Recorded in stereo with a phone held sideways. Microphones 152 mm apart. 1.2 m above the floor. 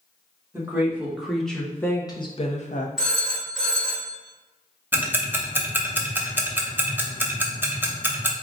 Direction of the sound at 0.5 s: 15° right (ahead or behind).